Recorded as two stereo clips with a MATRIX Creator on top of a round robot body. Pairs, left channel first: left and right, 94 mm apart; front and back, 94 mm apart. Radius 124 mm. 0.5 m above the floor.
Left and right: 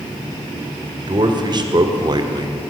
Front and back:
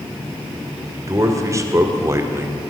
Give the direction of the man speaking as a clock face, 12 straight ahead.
4 o'clock.